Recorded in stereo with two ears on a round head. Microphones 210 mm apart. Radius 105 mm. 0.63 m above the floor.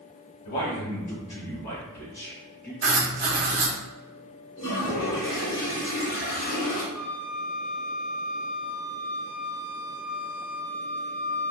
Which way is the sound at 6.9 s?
5° right (ahead or behind).